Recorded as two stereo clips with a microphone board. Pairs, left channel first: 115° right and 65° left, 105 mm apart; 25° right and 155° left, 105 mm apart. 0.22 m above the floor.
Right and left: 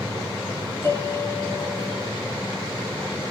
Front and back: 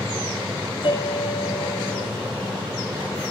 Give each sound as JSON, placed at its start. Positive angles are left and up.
{"t": 0.8, "sound": "a piano", "azimuth_deg": -50, "distance_m": 5.0}